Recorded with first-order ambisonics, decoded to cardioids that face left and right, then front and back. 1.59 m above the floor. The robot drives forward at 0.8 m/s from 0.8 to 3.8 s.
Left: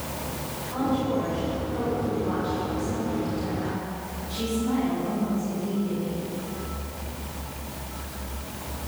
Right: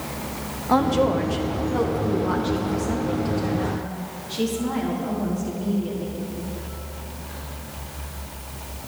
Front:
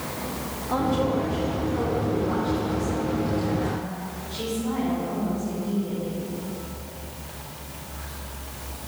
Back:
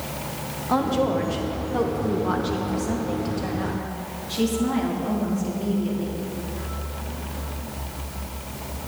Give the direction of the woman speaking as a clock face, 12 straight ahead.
4 o'clock.